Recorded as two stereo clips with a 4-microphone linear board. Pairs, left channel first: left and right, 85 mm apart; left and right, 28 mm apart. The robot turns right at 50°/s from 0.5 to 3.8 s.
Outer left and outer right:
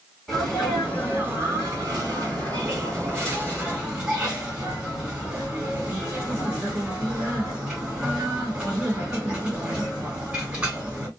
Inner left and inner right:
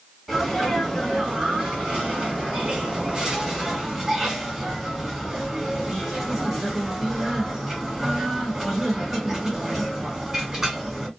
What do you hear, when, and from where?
0.3 s a sneeze: 175° right, 1.8 m; by 11.1 s 10° right, 1.8 m